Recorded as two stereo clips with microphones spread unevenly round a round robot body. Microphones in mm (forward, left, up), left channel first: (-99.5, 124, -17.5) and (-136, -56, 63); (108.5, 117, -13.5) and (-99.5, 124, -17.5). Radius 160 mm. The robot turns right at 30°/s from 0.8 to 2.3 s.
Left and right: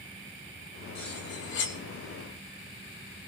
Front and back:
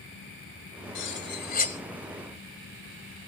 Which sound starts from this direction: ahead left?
Cutlery clinking, at 0.9 s.